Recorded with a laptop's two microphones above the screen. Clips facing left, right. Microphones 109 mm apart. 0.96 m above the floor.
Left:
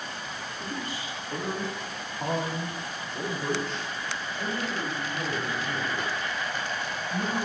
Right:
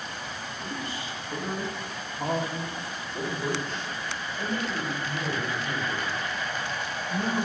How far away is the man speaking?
About 1.2 m.